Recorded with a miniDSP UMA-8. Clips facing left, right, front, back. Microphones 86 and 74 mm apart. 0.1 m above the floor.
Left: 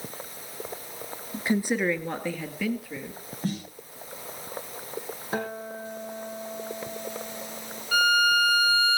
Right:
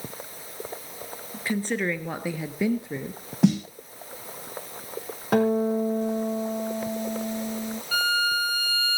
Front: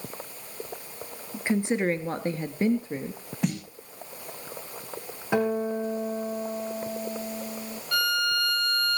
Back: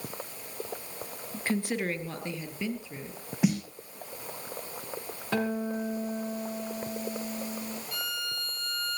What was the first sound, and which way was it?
A woman speaking, 65° left.